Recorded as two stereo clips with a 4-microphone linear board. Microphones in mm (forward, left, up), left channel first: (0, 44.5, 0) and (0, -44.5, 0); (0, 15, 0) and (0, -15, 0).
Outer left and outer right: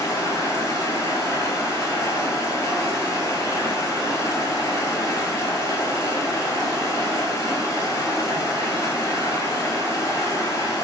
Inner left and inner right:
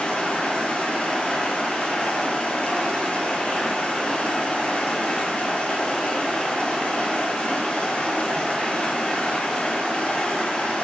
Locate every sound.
0.0 s running water: 35° left (ahead or behind), 0.8 m